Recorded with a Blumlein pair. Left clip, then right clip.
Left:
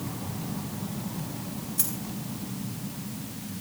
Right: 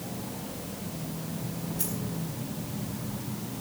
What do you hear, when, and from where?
1.8 s a dropped coin: 40° left, 4 m